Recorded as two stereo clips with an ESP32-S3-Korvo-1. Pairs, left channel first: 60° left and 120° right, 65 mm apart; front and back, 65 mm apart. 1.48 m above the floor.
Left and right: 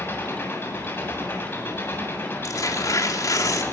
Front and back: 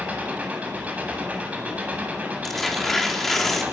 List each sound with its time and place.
0.0 s an engine running: 115° left, 8 m
2.4 s tearing paper: 90° left, 4 m